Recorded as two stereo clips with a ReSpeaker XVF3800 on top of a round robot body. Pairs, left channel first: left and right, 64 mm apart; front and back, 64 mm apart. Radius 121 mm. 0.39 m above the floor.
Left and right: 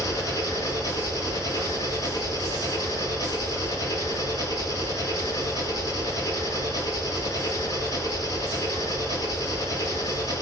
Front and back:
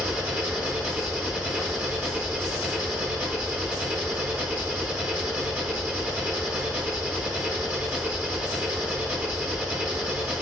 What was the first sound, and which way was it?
An engine running, 110° left.